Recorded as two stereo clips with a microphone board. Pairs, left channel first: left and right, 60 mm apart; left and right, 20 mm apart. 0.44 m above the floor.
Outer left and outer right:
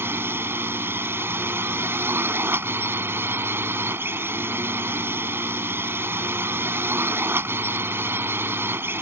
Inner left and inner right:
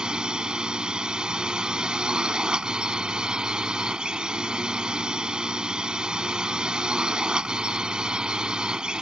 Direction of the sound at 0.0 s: 40° right (ahead or behind).